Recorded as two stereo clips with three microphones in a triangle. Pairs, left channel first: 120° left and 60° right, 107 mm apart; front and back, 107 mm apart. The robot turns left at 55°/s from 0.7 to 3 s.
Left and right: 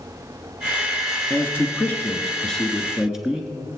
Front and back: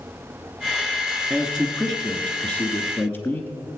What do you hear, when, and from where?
1.3 s a man speaking: 115° left, 1.1 m; by 3.5 s 20° left, 1.1 m